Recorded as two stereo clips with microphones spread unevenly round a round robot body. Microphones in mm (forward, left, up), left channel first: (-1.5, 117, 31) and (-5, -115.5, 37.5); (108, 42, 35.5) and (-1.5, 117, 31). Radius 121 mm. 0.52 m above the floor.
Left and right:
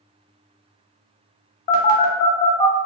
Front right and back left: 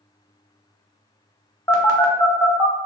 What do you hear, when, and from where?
1.7 s a phone buzzing: 35° left, 1.0 m